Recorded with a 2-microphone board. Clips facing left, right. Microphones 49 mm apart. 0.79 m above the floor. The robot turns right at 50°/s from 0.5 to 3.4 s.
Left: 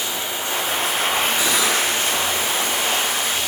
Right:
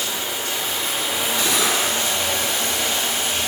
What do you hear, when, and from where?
0.0 s running water: 155° left, 1.0 m; by 3.5 s 60° right, 1.0 m
1.4 s cutlery clinking: 10° left (ahead or behind), 1.3 m; by 1.8 s 10° right (ahead or behind), 1.3 m